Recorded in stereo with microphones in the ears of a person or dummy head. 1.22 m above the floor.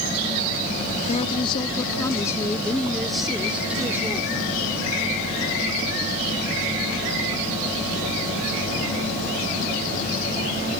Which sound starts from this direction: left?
A woman speaking, at 1.1 s.